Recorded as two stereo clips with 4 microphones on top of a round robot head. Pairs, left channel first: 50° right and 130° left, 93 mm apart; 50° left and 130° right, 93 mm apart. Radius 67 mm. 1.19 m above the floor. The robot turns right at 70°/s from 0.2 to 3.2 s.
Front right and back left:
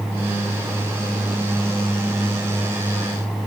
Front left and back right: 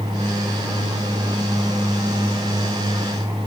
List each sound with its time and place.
Only background noise.